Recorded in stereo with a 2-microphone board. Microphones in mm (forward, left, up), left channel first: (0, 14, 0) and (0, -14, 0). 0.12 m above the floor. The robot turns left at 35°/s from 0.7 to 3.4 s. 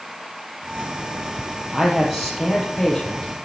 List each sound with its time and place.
1.7 s a man speaking: 155° right, 3.5 m; by 3.3 s 150° left, 3.5 m